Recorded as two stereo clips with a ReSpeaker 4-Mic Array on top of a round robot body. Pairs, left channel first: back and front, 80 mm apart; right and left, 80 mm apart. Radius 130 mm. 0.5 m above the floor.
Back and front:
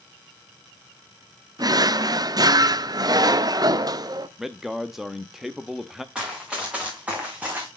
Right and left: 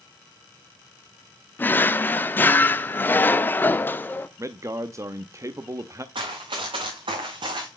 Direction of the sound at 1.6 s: 25° right.